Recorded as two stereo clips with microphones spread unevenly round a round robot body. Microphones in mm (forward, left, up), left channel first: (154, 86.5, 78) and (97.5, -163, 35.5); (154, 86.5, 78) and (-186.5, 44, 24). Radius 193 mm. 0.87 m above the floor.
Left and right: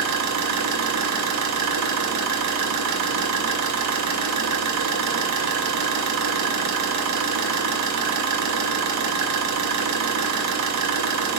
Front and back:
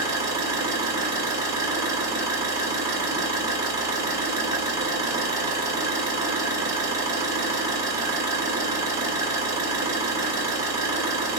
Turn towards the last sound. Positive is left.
turn(degrees=-90)